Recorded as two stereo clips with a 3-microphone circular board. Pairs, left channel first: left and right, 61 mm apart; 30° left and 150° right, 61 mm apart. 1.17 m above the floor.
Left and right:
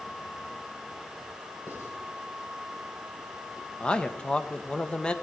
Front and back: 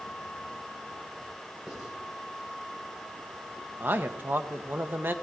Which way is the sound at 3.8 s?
160° left.